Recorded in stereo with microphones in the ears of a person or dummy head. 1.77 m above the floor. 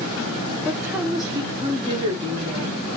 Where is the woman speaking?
10° right (ahead or behind), 0.8 m; by 2.8 s 40° right (ahead or behind), 2.5 m.